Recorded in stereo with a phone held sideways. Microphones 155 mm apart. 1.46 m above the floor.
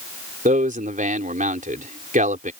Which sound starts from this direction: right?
A man speaking, at 0.5 s.